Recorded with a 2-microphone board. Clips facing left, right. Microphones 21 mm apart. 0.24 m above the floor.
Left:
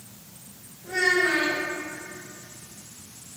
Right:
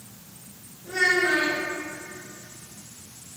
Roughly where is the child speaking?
Centre.